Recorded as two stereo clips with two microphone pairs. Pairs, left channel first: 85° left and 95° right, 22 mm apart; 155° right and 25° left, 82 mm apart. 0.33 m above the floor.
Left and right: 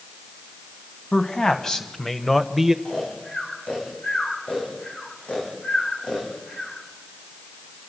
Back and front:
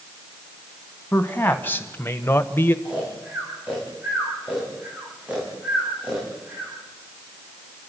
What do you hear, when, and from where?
1.1 s a man speaking: 140° left, 2.5 m; by 2.8 s 150° right, 1.0 m
2.9 s snoring: 100° left, 6.5 m